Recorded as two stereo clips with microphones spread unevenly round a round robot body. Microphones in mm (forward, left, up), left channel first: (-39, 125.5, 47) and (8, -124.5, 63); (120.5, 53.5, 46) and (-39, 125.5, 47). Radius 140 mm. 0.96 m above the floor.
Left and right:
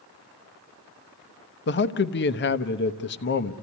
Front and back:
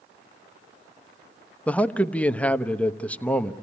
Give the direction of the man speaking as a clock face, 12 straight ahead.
10 o'clock.